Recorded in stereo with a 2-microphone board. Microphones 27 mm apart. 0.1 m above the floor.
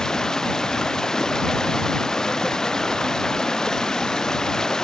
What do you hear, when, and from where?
0.0 s running water: 25° left (ahead or behind)